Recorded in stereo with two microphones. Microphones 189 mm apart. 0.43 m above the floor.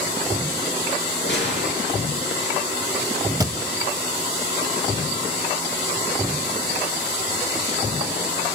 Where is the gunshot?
75° left (ahead or behind), 3 m.